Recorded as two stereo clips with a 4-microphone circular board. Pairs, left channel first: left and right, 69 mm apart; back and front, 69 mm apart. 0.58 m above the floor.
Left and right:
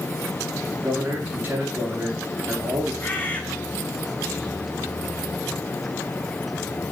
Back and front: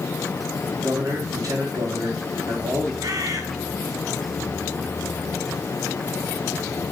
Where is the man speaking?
30° right, 9 m.